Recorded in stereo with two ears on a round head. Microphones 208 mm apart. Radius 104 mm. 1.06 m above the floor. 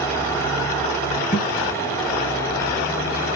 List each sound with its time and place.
1.3 s a thud: 35° left (ahead or behind), 2.5 m